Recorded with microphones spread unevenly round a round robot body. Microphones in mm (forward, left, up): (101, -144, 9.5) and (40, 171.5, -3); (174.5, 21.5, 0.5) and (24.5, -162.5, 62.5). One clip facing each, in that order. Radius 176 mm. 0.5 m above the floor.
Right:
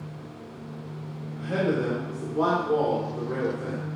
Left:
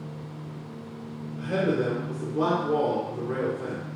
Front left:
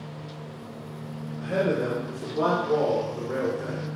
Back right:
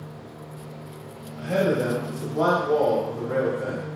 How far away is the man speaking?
About 0.9 m.